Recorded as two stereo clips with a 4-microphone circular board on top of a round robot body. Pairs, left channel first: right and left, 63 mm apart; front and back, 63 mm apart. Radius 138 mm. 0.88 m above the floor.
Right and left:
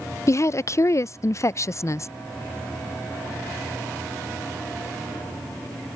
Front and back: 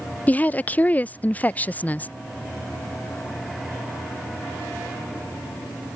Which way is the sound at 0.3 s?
60° right.